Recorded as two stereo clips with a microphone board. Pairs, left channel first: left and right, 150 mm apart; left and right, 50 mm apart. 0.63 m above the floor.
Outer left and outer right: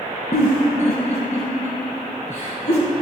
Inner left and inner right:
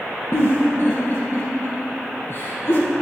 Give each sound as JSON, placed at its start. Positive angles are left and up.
{"t": 0.3, "sound": "a giggle", "side_deg": 50, "distance_m": 2.5}